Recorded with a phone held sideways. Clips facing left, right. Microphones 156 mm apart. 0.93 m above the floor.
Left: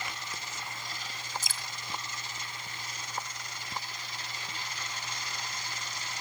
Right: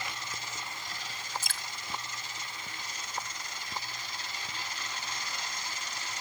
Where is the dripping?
60° right (ahead or behind), 1.9 m.